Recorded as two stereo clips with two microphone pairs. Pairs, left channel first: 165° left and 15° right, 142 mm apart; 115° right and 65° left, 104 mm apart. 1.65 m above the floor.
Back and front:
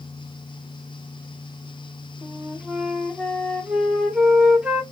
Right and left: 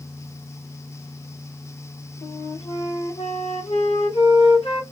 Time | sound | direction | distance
2.2 | a flute | 95° right | 0.9 m